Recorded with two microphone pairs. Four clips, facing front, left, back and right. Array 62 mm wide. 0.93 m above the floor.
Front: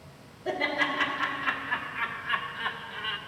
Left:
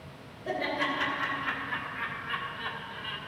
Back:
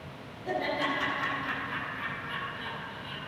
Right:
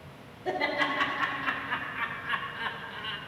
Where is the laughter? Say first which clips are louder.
Right 2 dB, front 2 dB; 60° right, 2.5 m; by 3.2 s 25° right, 0.8 m.